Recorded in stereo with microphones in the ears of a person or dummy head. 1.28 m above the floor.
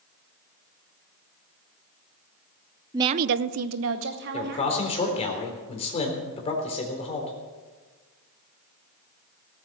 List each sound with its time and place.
2.9 s a woman speaking: 15° right (ahead or behind), 0.6 m; by 5.3 s 45° right (ahead or behind), 3 m
4.3 s a man speaking: 35° left (ahead or behind), 3.5 m